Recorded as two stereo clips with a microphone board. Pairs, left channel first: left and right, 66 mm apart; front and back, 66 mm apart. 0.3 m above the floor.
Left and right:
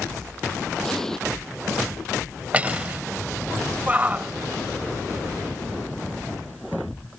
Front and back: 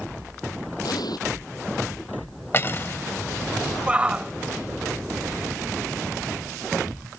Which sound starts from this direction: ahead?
An explosion, at 0.8 s.